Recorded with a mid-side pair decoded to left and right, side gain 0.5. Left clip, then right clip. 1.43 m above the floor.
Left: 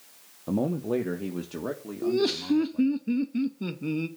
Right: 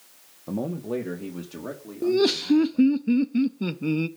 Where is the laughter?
30° right, 0.8 m.